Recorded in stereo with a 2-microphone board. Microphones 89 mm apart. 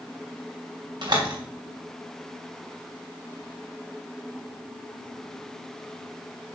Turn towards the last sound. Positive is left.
turn(degrees=-55)  # may be behind; listen again after turning